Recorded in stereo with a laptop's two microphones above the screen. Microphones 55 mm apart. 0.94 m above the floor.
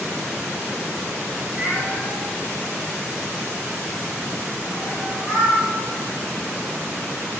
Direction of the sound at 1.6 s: 40° right (ahead or behind).